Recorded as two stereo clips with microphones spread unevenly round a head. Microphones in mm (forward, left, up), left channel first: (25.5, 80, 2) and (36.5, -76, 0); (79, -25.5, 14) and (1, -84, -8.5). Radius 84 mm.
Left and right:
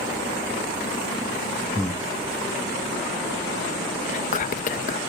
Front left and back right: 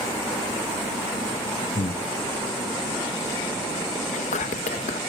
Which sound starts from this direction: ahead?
Breathing, at 1.8 s.